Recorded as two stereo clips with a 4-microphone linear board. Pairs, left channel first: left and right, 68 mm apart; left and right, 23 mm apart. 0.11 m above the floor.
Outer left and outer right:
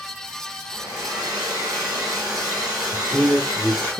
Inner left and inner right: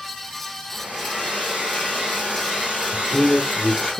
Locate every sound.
0.7 s a hair dryer: 80° right, 2.0 m
2.9 s a man speaking: 15° left (ahead or behind), 1.1 m